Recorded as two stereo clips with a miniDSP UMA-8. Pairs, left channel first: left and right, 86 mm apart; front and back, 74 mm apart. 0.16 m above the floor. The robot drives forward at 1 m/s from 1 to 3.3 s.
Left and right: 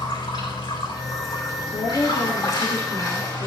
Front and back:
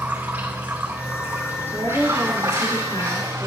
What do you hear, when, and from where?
0.0 s running water: 110° left, 4 m; by 3.5 s 135° left, 5 m
1.7 s a woman speaking: 80° left, 4.5 m; by 3.5 s 100° left, 4.5 m